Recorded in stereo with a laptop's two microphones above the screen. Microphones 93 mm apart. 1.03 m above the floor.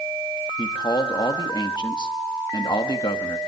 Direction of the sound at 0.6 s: 50° left (ahead or behind).